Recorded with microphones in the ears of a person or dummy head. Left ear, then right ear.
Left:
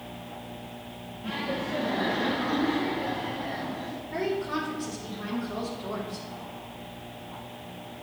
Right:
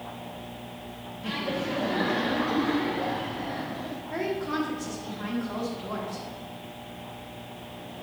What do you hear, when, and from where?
1.2 s laughter: 55° right (ahead or behind), 1.6 m; by 4.0 s 45° right (ahead or behind), 2.5 m
4.1 s a woman speaking: 60° right (ahead or behind), 2.5 m